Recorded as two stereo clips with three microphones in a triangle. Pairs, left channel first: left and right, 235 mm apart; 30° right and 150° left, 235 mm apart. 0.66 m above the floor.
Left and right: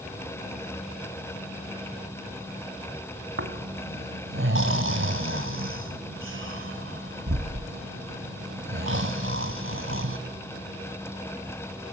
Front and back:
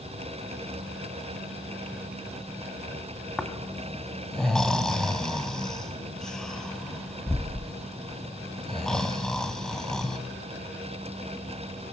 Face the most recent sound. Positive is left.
turn(degrees=-115)